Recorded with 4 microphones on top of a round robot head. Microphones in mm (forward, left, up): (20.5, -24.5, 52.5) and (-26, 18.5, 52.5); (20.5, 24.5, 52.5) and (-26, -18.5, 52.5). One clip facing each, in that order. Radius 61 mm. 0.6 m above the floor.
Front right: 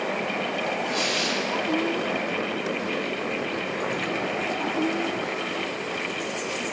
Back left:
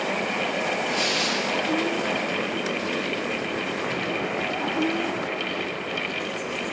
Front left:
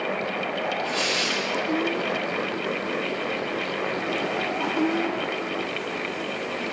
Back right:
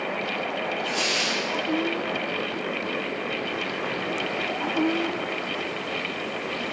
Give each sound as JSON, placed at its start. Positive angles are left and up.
{"t": 0.8, "sound": "tearing paper", "azimuth_deg": -60, "distance_m": 2.0}